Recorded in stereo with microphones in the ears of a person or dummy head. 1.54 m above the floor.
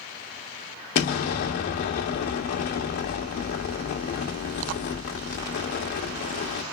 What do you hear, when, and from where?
0.9 s an explosion: 40° left (ahead or behind), 1.1 m